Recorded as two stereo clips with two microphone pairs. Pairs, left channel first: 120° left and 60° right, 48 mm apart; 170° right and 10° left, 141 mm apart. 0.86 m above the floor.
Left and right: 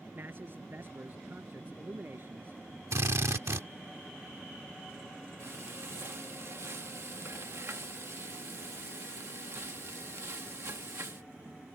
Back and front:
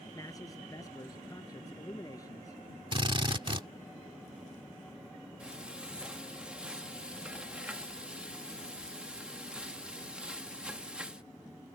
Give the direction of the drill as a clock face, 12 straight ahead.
1 o'clock.